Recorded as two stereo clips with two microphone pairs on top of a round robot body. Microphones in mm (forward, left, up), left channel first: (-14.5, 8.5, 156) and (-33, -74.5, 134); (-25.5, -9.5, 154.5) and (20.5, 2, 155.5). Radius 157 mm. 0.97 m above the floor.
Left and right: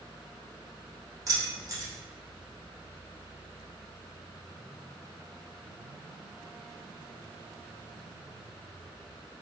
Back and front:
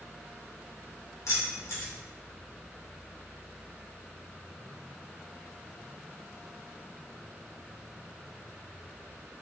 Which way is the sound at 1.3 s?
155° right.